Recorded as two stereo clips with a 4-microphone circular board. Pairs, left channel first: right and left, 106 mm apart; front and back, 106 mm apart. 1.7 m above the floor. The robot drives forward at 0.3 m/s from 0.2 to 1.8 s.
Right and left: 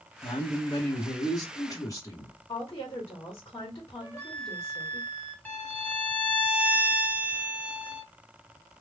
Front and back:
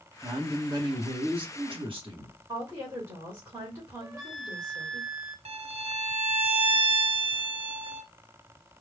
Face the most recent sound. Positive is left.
turn(degrees=-165)